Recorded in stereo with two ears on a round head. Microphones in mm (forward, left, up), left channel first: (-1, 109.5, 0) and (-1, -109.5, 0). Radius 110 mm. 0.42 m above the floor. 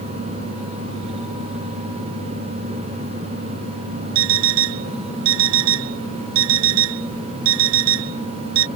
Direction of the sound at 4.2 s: 75° right (ahead or behind).